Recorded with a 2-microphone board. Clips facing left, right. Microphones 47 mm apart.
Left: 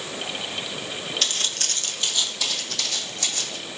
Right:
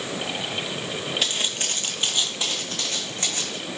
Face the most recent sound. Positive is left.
turn(degrees=-25)  # may be behind; listen again after turning